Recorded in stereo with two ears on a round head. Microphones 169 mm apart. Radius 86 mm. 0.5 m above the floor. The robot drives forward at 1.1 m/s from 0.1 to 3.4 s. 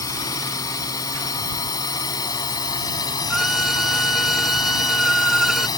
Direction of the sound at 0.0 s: 15° left (ahead or behind).